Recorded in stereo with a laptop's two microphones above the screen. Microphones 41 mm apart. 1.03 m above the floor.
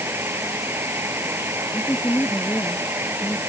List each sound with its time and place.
0.0 s a fan: 75° right (ahead or behind)
1.7 s a woman speaking: 70° left (ahead or behind)